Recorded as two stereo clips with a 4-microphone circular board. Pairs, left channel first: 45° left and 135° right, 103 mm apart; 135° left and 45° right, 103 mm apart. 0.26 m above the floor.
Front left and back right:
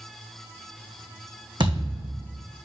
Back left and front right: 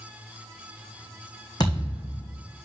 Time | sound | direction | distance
1.6 | a thud | 175° right | 2.5 m